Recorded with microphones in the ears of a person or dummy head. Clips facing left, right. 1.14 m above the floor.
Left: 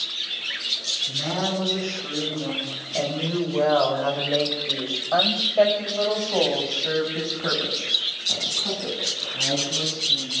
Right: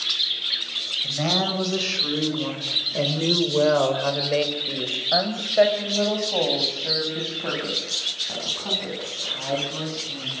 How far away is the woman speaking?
About 4.5 m.